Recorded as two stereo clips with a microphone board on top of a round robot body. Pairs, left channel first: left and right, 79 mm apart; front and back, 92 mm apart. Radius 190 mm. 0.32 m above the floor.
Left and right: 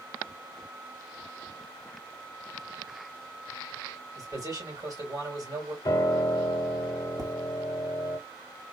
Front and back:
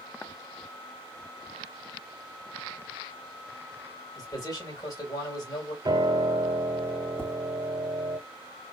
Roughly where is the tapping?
Right.